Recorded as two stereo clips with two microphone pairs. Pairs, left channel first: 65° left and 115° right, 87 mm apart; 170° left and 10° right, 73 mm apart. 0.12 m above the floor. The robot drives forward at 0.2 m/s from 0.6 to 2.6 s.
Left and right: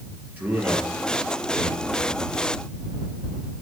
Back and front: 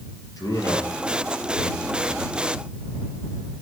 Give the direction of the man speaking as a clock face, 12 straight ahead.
6 o'clock.